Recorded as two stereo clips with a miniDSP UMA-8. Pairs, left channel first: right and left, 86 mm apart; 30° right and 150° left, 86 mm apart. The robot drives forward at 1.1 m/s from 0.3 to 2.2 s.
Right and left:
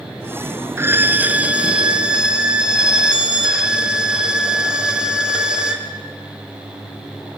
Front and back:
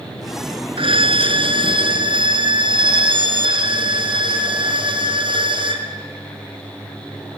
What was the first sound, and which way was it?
A violin, 150° left.